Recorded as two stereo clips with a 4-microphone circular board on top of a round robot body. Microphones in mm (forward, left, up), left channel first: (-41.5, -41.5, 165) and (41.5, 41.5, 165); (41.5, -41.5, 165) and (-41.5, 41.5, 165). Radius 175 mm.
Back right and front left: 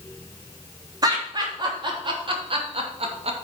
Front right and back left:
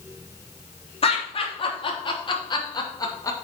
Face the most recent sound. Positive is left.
turn(degrees=15)